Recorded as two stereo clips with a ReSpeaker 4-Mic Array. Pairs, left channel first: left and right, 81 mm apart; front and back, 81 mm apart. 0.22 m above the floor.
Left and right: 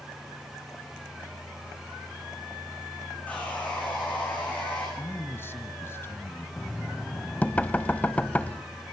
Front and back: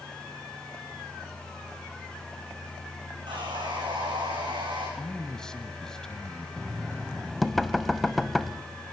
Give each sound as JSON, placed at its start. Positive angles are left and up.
{"t": 3.3, "sound": "sawing", "azimuth_deg": 160, "distance_m": 8.5}
{"t": 5.0, "sound": "a man speaking", "azimuth_deg": 70, "distance_m": 1.3}
{"t": 6.6, "sound": "knocking", "azimuth_deg": 85, "distance_m": 0.6}